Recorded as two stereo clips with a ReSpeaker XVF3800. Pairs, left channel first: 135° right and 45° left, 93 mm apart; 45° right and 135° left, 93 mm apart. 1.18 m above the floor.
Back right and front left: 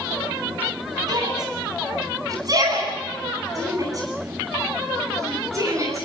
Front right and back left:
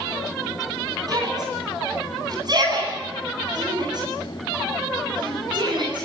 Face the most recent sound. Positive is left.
turn(degrees=100)